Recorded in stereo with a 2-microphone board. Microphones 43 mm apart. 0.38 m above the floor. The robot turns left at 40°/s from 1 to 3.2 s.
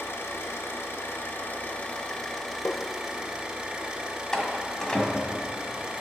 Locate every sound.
0.0 s an engine running: 75° left, 3 m; by 6.0 s 15° right, 3 m
2.6 s tapping: 60° left (ahead or behind), 0.7 m
4.3 s a door slam: 15° left (ahead or behind), 1.7 m